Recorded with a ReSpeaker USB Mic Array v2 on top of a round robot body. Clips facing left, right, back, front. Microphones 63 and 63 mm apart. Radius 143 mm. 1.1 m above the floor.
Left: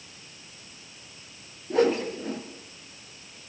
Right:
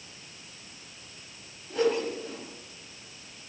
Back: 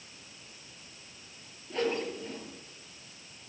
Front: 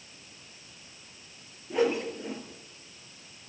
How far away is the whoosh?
About 4.5 m.